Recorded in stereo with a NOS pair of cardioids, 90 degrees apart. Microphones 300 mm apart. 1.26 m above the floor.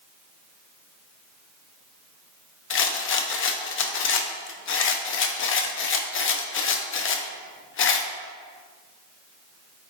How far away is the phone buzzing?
I don't hear a phone buzzing.